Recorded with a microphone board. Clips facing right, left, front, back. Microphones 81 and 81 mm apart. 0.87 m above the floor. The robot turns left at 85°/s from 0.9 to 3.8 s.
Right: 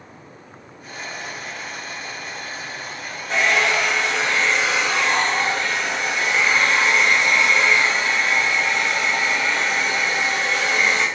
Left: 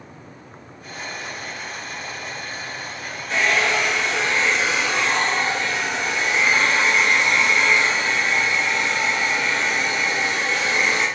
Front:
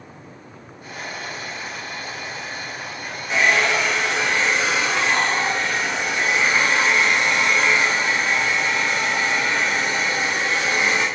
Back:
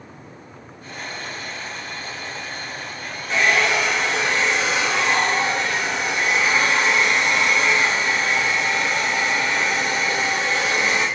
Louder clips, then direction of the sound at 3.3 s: Right 1 dB, even; 70° right.